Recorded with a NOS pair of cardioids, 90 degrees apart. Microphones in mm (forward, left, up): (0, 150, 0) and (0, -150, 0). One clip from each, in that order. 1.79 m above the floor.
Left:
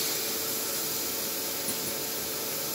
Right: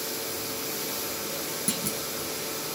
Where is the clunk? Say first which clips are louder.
Right 3 dB; 65° right, 1.8 m.